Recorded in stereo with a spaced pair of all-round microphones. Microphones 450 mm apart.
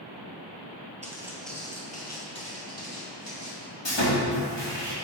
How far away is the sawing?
About 1.6 m.